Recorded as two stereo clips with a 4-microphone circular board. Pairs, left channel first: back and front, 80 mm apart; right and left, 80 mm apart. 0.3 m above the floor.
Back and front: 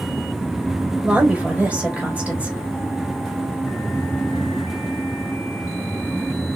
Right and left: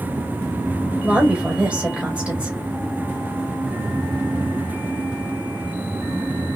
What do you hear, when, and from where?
1.0 s a woman speaking: 45° left, 1.1 m